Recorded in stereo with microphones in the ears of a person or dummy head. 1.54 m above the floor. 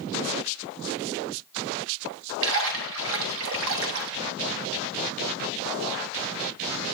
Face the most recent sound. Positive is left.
turn(degrees=-65)  # may be behind; listen again after turning